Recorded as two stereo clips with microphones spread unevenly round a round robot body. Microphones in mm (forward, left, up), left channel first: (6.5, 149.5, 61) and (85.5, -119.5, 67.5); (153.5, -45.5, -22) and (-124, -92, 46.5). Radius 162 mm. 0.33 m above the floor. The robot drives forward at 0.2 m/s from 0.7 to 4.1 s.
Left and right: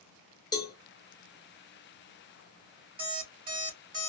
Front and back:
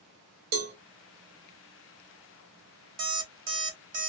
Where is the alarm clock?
145° right, 1.3 m; by 4.1 s 150° right, 1.5 m.